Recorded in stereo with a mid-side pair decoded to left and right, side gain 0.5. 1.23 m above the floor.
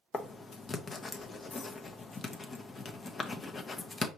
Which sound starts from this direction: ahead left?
Writing, at 0.1 s.